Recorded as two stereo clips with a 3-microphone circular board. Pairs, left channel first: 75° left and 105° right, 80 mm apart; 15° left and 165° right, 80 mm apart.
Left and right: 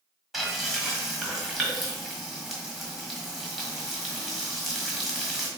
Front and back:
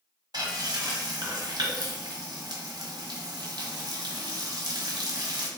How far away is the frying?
About 1.3 m.